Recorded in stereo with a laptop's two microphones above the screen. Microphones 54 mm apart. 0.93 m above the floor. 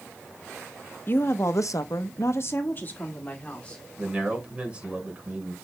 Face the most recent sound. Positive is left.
turn(degrees=-20)  # may be behind; listen again after turning